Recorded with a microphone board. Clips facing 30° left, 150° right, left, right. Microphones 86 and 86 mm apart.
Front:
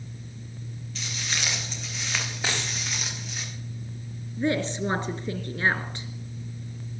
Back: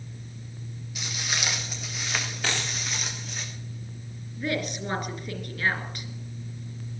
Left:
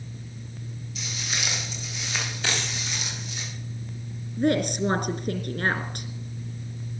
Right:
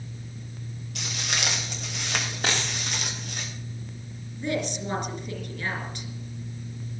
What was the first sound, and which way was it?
Footsteps, 70° right.